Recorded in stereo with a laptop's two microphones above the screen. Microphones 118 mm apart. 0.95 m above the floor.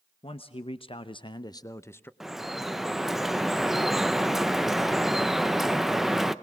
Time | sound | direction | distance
0.2 | a man speaking | 50° left (ahead or behind) | 0.9 m
2.2 | dripping | 5° right (ahead or behind) | 0.5 m